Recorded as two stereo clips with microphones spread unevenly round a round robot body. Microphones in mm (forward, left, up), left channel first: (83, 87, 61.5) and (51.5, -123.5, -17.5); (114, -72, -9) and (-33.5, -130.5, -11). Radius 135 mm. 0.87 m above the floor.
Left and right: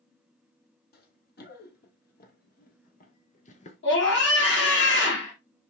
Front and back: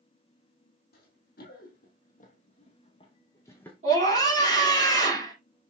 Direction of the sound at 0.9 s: 50° left.